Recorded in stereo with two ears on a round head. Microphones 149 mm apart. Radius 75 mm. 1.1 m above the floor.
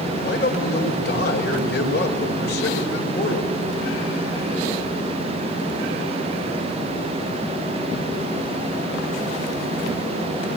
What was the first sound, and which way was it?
A man speaking, 70° left (ahead or behind).